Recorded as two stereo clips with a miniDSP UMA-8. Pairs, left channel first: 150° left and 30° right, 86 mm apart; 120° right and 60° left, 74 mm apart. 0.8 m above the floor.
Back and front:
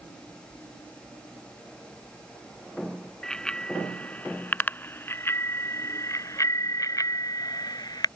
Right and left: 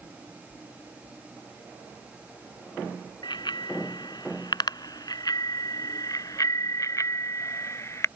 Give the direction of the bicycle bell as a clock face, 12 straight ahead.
4 o'clock.